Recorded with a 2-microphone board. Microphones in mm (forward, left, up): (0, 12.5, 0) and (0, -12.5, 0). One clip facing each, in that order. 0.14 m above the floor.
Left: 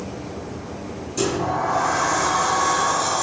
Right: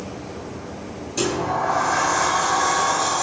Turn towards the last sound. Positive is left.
turn(degrees=-25)  # may be behind; listen again after turning